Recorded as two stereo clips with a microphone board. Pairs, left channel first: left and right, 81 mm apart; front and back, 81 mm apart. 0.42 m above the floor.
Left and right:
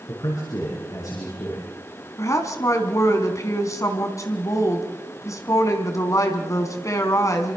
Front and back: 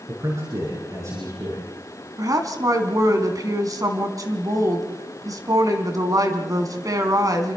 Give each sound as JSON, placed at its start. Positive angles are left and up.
{"t": 0.1, "sound": "a man speaking", "azimuth_deg": 135, "distance_m": 6.0}
{"t": 2.2, "sound": "a woman speaking", "azimuth_deg": 140, "distance_m": 3.0}